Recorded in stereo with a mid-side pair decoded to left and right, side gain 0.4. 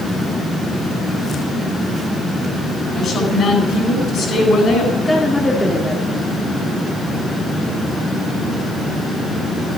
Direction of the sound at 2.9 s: 55° left.